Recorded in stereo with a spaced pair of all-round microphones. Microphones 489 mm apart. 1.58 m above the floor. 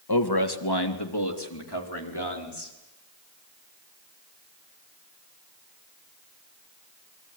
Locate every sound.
0.1 s a man speaking: 50° left (ahead or behind), 1.8 m; by 2.7 s 55° left (ahead or behind), 4.5 m